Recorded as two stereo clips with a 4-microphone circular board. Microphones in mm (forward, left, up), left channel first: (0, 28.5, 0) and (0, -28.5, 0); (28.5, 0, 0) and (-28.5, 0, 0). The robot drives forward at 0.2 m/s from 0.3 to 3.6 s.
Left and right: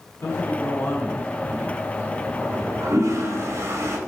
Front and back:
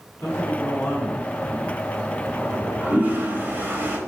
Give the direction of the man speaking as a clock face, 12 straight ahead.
10 o'clock.